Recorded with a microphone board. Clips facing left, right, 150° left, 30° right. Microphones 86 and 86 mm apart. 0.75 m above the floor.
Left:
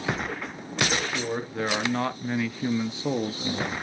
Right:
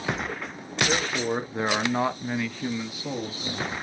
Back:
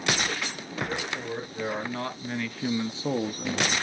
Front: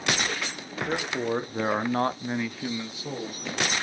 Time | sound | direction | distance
0.9 | a man speaking | 30° right | 1.3 m